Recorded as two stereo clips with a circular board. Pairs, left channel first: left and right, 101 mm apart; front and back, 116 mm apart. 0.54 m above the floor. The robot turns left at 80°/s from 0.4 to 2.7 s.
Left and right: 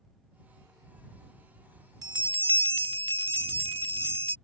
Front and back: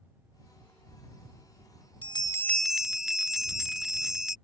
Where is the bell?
40° right; by 4.4 s 95° right.